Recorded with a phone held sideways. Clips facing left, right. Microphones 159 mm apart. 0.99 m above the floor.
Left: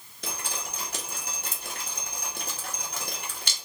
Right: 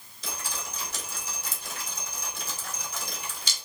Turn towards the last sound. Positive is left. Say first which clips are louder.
# left 1 dB
turn(degrees=60)  # may be behind; listen again after turning